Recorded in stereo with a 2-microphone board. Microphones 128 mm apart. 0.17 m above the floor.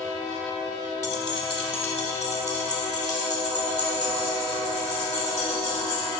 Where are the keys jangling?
25° left (ahead or behind), 1.1 m; by 6.1 s 80° left, 6 m.